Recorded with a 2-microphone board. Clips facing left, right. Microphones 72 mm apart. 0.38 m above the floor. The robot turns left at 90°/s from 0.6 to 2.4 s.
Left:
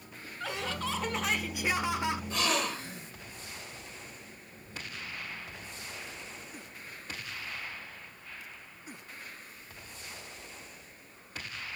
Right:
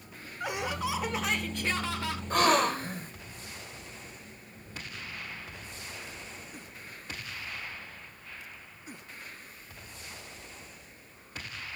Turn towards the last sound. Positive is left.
turn(degrees=-50)  # may be behind; listen again after turning